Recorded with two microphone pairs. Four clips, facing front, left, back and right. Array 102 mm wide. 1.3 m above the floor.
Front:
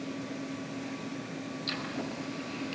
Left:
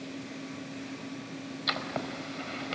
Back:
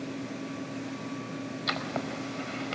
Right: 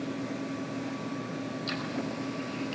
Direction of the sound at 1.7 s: 140° left.